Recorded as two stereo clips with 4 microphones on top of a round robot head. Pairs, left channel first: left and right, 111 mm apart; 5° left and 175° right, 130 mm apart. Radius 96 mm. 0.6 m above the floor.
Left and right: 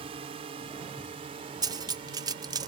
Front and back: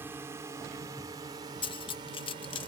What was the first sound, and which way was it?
A drone, 105° right.